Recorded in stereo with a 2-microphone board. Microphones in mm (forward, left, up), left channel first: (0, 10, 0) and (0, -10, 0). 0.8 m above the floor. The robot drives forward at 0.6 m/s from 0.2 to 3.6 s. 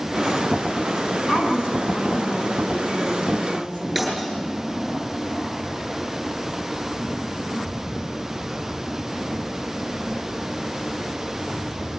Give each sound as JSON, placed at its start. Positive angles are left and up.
{"t": 1.3, "sound": "a woman speaking", "side_deg": 85, "distance_m": 9.0}
{"t": 4.0, "sound": "breaking glass", "side_deg": -5, "distance_m": 8.0}